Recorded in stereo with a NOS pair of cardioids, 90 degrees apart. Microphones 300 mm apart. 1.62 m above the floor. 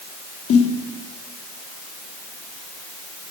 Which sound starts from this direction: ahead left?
A snare drum, at 0.5 s.